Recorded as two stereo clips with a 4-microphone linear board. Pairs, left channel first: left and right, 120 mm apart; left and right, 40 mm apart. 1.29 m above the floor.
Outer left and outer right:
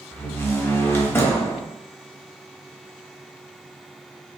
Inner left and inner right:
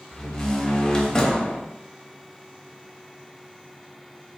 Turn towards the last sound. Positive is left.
turn(degrees=20)  # may be behind; listen again after turning